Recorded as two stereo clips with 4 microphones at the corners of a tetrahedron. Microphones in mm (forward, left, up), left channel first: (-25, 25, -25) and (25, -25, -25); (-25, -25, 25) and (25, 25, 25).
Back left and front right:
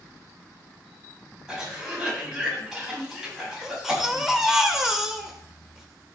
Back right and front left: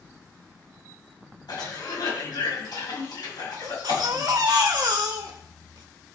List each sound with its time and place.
1.5 s a cough: 125° right, 6 m
3.6 s a baby crying: 40° left, 1.5 m